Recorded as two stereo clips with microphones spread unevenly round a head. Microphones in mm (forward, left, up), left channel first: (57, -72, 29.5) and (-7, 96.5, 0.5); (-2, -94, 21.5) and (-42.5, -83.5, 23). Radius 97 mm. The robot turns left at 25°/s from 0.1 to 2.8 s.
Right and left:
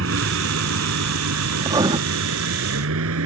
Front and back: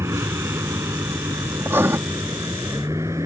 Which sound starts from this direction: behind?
Writing, at 1.6 s.